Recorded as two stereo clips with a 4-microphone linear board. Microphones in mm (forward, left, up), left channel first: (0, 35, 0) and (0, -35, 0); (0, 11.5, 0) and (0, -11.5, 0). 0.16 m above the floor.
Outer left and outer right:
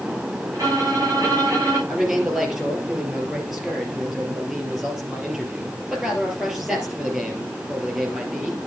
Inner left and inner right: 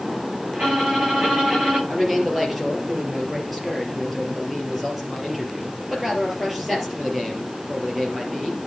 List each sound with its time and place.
0.5 s a violin: 55° right (ahead or behind), 6.5 m
1.9 s a man speaking: 5° right (ahead or behind), 3.5 m